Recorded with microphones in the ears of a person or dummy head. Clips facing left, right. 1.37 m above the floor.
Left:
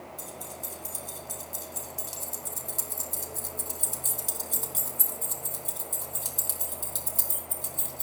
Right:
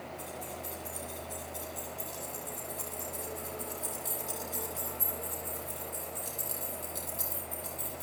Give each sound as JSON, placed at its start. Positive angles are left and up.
{"t": 0.2, "sound": "keys jangling", "side_deg": 45, "distance_m": 5.0}